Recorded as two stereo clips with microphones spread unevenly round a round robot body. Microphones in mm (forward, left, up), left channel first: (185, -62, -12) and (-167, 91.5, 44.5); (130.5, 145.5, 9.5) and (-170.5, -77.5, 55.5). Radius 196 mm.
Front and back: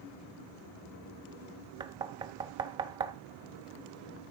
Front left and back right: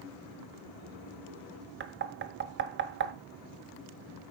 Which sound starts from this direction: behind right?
Knocking, at 1.8 s.